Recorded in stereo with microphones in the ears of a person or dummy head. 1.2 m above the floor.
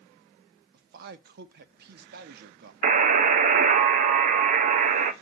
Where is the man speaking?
60° right (ahead or behind), 0.9 m.